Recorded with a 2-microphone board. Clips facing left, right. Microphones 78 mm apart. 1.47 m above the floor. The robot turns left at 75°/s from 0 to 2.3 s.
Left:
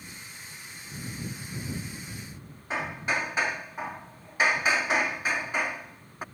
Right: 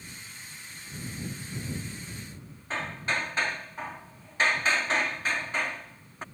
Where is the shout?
No shout in this recording.